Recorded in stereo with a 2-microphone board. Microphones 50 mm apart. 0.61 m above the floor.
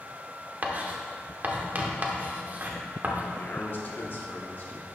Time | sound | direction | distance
0.6 | writing | 35° right (ahead or behind) | 0.8 m
3.4 | a man speaking | 40° left (ahead or behind) | 0.8 m